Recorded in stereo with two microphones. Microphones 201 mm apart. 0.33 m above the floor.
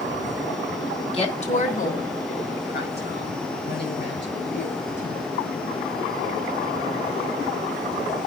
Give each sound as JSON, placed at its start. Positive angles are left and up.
{"t": 1.1, "sound": "a woman speaking", "side_deg": 30, "distance_m": 2.5}